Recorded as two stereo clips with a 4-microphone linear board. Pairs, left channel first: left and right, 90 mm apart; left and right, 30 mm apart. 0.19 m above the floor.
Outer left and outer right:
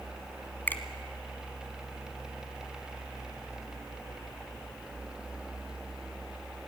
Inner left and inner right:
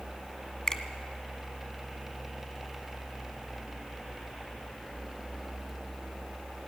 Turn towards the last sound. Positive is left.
turn(degrees=20)  # may be behind; listen again after turning